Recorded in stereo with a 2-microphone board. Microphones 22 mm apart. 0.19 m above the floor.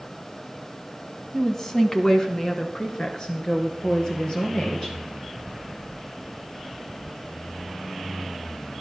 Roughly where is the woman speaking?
Centre.